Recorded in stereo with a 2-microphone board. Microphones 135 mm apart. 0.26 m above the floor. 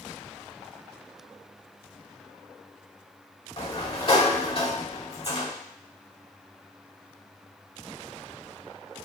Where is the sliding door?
45° left (ahead or behind), 0.6 m.